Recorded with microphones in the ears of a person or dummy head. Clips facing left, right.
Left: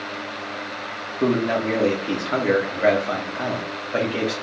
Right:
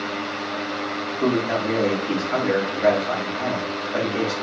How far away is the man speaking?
About 1.5 m.